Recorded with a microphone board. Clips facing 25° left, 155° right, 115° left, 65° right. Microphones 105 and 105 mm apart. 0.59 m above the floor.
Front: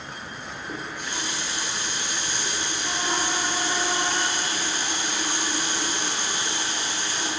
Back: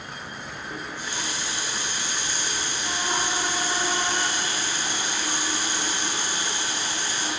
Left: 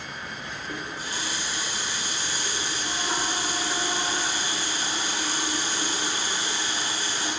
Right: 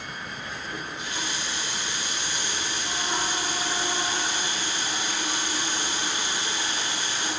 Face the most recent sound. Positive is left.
turn(degrees=55)